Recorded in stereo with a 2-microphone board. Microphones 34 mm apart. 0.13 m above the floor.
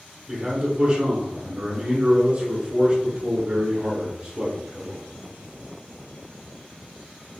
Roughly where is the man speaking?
Right.